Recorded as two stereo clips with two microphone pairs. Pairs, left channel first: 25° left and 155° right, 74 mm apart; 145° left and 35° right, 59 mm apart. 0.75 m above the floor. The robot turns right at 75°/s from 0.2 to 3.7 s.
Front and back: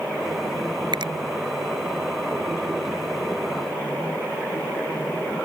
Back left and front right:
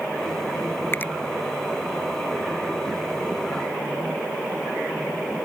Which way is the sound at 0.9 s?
165° right.